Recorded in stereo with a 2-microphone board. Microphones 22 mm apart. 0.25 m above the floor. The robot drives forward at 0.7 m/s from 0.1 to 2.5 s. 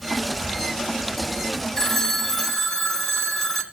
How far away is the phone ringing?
About 0.8 m.